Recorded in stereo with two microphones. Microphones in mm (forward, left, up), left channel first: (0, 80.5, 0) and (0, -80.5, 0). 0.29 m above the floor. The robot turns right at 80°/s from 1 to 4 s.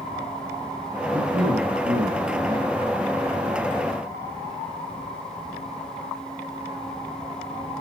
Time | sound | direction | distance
1.1 | a man speaking | 155° right | 1.5 m